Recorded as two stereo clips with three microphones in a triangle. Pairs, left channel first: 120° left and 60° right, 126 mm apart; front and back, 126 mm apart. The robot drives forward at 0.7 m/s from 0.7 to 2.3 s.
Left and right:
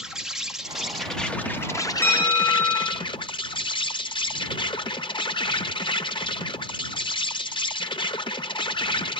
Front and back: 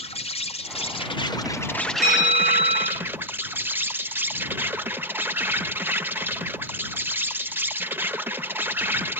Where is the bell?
165° right, 1.9 m.